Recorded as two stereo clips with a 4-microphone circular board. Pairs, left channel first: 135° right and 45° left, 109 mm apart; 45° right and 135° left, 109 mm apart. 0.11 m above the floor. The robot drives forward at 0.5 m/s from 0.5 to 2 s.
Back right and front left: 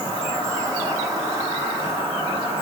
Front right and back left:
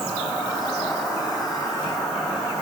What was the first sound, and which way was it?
An insect, 125° right.